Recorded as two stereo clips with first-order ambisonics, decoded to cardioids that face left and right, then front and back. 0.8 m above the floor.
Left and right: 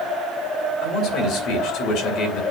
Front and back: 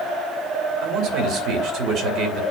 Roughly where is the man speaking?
Behind left.